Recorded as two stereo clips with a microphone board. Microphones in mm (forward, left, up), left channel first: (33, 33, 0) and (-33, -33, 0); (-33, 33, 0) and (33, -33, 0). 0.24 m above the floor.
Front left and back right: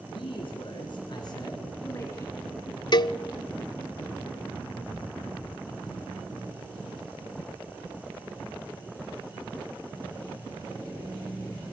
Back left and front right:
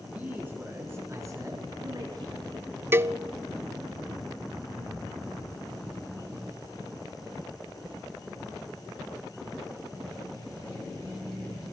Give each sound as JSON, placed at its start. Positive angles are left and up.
{"t": 0.1, "sound": "a man speaking", "azimuth_deg": 30, "distance_m": 4.5}
{"t": 2.9, "sound": "a cowbell", "azimuth_deg": 15, "distance_m": 0.5}